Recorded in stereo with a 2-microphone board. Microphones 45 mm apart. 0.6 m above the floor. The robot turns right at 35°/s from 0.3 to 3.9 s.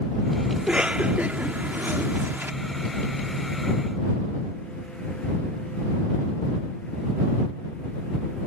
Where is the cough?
20° right (ahead or behind); by 2.5 s 50° right (ahead or behind).